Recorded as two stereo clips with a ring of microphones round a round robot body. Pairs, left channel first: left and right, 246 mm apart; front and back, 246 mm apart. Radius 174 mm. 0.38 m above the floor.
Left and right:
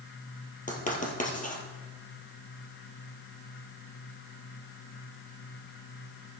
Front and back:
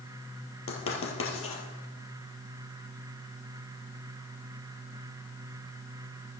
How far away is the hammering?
No hammering in this recording.